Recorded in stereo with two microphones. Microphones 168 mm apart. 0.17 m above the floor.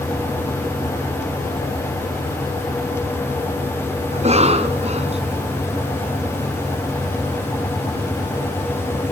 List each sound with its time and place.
4.1 s a cough: 40° right (ahead or behind), 1.9 m